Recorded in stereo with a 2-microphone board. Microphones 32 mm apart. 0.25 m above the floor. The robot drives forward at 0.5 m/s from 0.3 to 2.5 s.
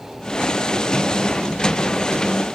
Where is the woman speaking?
No woman speaking in this recording.